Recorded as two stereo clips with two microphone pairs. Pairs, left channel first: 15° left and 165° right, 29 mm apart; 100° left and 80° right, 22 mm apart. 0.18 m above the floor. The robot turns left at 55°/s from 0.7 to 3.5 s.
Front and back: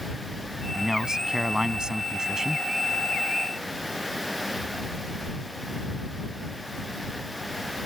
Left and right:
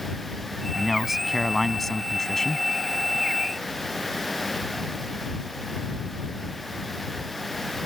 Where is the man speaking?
120° right; by 2.7 s 135° left.